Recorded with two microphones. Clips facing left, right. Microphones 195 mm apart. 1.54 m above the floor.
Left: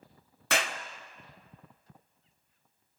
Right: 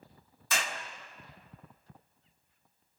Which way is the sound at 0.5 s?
70° left (ahead or behind).